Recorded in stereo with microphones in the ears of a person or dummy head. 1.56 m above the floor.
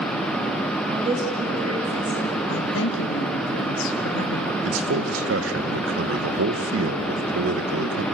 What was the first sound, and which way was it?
A woman speaking, 25° right (ahead or behind).